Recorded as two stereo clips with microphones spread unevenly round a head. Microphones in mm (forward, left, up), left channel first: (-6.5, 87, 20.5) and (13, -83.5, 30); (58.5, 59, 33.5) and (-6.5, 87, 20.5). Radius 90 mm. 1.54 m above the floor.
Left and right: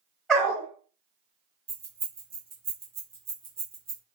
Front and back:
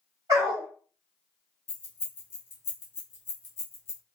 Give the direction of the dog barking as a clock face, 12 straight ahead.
6 o'clock.